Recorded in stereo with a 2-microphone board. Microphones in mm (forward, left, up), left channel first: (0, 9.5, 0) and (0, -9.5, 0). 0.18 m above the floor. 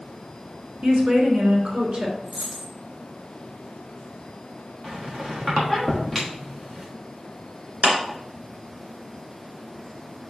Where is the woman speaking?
55° right (ahead or behind), 1.9 m.